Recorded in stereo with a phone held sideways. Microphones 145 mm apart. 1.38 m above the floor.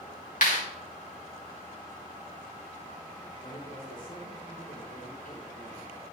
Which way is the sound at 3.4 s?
80° left.